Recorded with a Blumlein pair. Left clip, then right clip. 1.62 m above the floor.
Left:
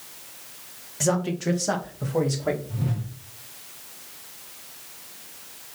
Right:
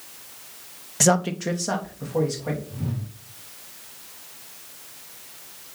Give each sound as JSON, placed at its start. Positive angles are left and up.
{"t": 1.0, "sound": "a man speaking", "azimuth_deg": -30, "distance_m": 0.7}
{"t": 2.7, "sound": "a whoosh", "azimuth_deg": 15, "distance_m": 1.4}